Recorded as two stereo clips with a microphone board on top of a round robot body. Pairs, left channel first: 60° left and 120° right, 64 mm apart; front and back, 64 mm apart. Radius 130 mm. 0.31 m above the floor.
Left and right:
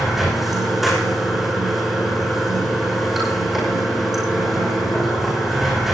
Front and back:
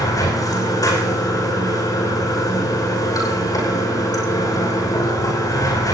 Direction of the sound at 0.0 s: 35° right.